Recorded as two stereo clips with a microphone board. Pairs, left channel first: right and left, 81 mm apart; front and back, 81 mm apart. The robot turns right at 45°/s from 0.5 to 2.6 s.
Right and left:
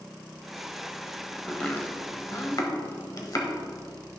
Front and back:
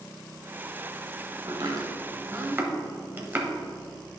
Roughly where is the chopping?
Behind.